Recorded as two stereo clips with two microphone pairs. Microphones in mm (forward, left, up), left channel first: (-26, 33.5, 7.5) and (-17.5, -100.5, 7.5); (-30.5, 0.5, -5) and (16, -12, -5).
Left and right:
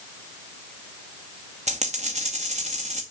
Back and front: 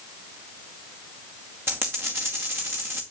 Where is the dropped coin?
55° right, 2 m.